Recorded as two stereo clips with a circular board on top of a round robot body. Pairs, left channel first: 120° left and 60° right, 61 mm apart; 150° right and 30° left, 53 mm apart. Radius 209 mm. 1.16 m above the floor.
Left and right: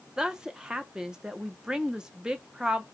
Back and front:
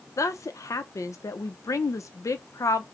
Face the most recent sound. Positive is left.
turn(degrees=-140)